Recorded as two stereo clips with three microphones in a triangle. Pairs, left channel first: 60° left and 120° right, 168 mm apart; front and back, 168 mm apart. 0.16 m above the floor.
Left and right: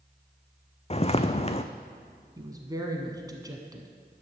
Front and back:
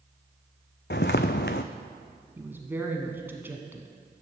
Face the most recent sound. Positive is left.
turn(degrees=-125)